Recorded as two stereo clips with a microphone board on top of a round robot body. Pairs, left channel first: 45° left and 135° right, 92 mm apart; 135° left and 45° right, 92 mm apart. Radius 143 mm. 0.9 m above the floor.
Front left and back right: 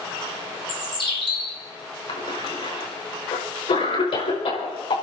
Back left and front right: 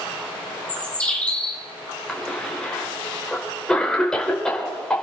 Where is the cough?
55° left, 5 m.